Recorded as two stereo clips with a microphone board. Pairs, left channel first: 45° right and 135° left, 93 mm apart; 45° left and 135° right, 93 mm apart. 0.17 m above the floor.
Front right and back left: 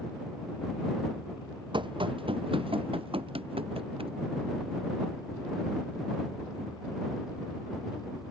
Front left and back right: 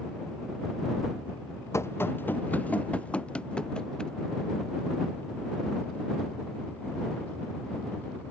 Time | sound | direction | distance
1.7 | running footsteps | 105° left | ?